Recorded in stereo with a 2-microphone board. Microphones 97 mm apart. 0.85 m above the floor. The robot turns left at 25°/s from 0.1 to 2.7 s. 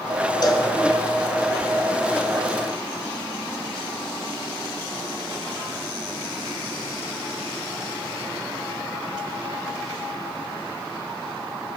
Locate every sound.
0.4 s a cowbell: 40° left (ahead or behind), 1.0 m; by 0.7 s 35° left (ahead or behind), 1.0 m